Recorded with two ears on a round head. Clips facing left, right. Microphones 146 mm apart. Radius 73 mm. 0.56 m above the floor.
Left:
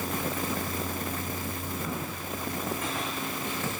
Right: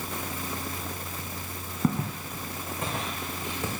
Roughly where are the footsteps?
Right.